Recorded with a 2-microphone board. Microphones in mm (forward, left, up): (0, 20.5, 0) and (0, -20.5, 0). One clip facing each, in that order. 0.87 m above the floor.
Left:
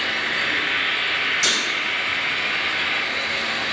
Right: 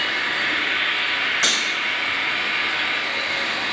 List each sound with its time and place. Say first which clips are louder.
0.0 s an insect: even; 60° right (ahead or behind), 1.4 m
1.4 s breaking glass: right 2 dB; 50° right (ahead or behind), 1.1 m